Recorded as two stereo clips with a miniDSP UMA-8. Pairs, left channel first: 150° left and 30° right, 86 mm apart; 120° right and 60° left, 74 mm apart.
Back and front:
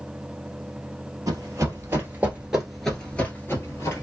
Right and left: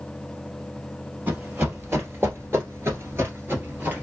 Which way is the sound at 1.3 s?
5° left.